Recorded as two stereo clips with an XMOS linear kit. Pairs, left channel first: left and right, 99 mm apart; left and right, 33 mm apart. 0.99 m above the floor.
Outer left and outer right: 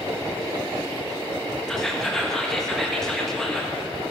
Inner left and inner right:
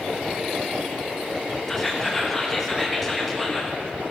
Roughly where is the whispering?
Centre.